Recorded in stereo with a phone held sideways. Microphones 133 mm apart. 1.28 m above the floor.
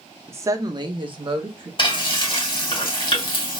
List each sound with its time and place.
0.3 s a woman speaking: 20° right (ahead or behind), 0.6 m; by 1.7 s 40° right (ahead or behind), 0.8 m
1.8 s frying: 40° left (ahead or behind), 1.4 m